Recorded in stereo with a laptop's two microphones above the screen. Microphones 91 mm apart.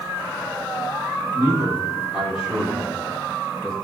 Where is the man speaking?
25° right (ahead or behind), 2.5 m; by 3.7 s centre (ahead or behind), 4.5 m.